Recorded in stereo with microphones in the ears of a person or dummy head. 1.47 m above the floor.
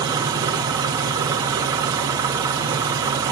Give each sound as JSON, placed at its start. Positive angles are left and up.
{"t": 0.0, "sound": "an engine running", "side_deg": -10, "distance_m": 1.6}